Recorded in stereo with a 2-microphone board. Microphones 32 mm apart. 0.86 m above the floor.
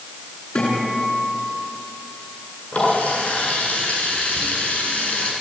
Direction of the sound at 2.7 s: 45° left (ahead or behind).